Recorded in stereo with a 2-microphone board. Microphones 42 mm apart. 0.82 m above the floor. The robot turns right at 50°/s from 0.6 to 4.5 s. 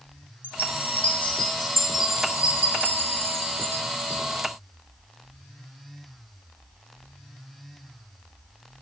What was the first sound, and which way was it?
A chime, 115° left.